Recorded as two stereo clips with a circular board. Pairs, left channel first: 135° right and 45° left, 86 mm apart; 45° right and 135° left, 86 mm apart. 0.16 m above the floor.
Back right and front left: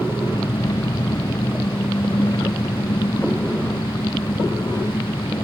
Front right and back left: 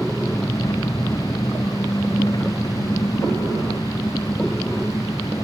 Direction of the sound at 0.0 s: 90° right.